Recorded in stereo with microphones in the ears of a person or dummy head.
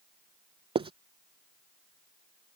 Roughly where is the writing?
Right.